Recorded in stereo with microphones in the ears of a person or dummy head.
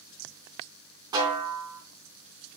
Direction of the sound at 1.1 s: 25° right (ahead or behind).